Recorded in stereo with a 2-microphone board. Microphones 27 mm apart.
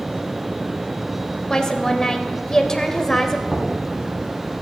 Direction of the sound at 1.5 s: 20° left (ahead or behind).